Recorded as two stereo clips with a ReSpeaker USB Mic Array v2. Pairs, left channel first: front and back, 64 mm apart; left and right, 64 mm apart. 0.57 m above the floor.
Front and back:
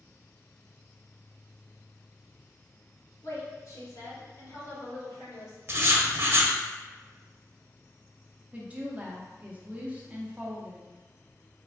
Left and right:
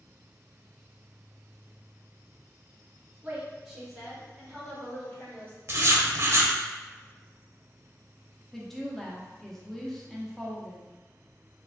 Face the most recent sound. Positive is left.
turn(degrees=170)